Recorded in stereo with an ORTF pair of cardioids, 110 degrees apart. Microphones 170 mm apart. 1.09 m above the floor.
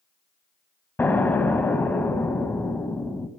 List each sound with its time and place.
1.0 s an explosion: 10° left, 0.8 m